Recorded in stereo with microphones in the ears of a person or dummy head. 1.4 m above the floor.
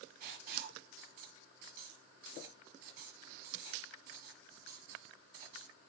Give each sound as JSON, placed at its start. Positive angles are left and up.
{"t": 0.2, "sound": "writing", "side_deg": -40, "distance_m": 1.6}